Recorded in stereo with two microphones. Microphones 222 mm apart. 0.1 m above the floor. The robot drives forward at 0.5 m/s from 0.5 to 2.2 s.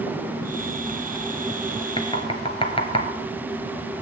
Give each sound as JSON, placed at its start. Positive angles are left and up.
{"t": 2.0, "sound": "knocking", "side_deg": 25, "distance_m": 1.3}